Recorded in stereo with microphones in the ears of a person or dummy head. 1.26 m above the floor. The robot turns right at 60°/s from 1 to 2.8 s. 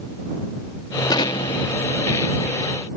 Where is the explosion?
20° left; by 2.9 s 120° left.